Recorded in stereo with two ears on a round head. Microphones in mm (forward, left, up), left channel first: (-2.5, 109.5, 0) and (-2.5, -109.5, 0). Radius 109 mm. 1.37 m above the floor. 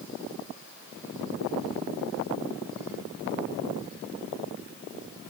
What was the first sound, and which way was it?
Only background noise.